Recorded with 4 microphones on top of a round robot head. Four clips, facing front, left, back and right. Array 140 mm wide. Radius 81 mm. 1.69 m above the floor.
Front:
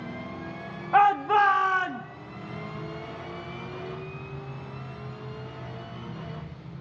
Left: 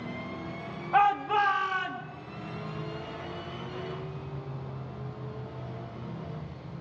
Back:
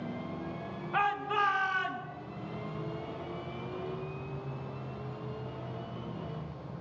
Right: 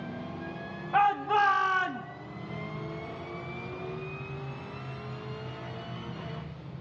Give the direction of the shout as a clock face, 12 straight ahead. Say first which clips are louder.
Left 1 dB, front 11 dB; 12 o'clock.